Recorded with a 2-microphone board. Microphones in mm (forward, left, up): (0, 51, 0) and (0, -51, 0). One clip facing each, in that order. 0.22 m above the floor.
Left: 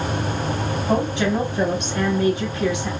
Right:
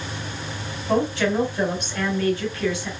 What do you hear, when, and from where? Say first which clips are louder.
0.9 s a woman speaking: even; 20° left (ahead or behind), 1.4 m